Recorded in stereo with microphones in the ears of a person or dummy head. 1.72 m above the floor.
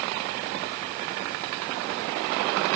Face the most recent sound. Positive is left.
No sound to turn to.